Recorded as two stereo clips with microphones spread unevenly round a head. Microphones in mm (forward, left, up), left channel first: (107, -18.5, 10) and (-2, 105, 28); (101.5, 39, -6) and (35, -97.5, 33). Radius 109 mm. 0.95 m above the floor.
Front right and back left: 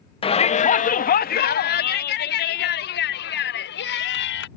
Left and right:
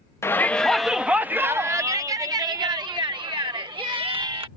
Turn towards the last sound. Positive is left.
turn(degrees=-60)